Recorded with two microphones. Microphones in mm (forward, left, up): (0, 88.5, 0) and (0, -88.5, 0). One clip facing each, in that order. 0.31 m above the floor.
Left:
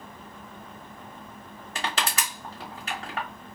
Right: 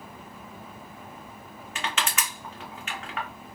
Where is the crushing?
35° left (ahead or behind), 1.2 m.